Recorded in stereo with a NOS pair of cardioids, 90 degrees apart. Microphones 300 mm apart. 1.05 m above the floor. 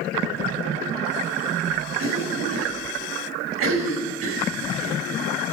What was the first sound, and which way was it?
A cough, 60° right.